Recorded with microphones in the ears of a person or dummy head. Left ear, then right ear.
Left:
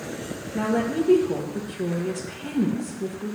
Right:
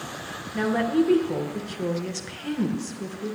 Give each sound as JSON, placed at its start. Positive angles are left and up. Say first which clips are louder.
{"t": 0.5, "sound": "a woman speaking", "louder": "right 2 dB", "side_deg": -30, "distance_m": 1.1}